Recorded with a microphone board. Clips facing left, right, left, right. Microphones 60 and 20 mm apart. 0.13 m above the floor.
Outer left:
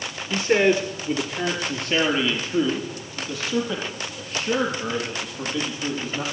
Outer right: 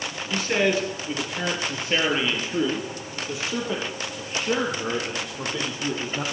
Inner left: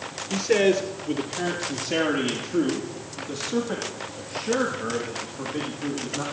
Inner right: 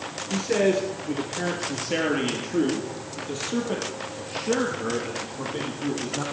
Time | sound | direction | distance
0.3 | a man speaking | 20° left (ahead or behind) | 1.8 m